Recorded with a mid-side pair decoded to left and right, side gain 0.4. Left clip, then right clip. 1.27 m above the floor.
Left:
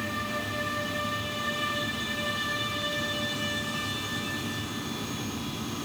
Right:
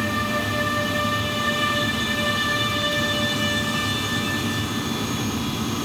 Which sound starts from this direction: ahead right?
A fan, at 0.0 s.